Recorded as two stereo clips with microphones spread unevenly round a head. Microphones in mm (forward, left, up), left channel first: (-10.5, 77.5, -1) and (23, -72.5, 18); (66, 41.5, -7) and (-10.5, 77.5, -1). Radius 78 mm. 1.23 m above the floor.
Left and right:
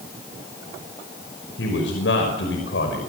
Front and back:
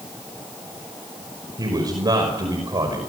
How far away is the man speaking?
About 5.5 m.